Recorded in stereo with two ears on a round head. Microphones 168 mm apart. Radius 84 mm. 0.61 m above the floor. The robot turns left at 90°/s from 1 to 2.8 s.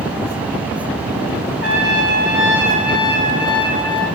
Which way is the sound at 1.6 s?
95° right.